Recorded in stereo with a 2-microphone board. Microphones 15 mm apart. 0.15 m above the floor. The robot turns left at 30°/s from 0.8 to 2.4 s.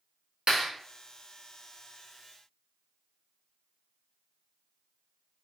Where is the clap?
55° right (ahead or behind), 1.9 m.